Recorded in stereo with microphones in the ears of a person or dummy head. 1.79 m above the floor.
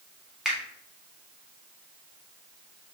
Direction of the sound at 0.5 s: Centre (ahead or behind).